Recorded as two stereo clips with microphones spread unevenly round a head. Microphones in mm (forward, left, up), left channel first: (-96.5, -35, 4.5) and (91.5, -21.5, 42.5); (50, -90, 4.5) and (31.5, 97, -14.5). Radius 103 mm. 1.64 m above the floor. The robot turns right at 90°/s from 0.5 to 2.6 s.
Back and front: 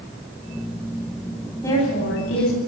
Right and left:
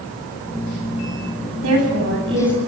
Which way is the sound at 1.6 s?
105° left.